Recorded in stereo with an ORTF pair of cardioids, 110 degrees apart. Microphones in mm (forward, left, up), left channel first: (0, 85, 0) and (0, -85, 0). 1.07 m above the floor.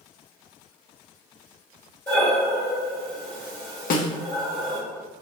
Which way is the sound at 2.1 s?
15° left.